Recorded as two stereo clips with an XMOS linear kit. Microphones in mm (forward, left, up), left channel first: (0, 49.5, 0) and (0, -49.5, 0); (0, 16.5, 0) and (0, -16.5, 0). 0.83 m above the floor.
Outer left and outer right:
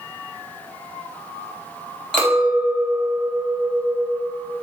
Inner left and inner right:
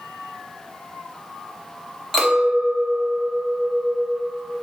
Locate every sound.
2.1 s a clink: 10° left (ahead or behind), 0.8 m